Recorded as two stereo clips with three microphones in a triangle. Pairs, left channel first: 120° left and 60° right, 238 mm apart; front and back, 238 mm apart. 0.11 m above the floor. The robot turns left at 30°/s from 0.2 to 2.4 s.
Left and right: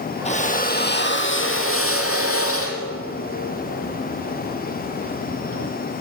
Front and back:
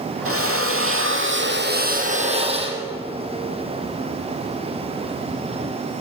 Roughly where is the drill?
Behind.